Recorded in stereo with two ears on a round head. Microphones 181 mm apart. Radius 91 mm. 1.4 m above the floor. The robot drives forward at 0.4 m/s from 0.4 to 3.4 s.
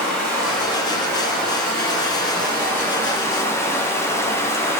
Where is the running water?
5° left (ahead or behind), 1.7 m; by 4.8 s 15° left (ahead or behind), 0.6 m.